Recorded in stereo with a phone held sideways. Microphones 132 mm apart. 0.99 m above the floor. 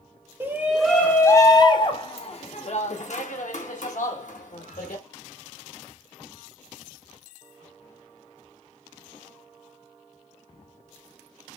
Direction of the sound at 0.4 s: 15° right (ahead or behind).